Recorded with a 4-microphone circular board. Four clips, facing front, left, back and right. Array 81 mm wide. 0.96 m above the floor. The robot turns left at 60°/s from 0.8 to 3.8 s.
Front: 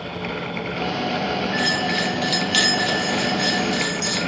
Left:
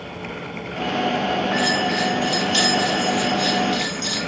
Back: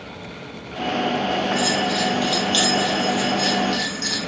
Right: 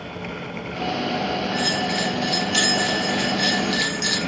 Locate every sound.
1.5 s a bell: 55° left, 2.5 m; by 4.2 s 80° right, 2.5 m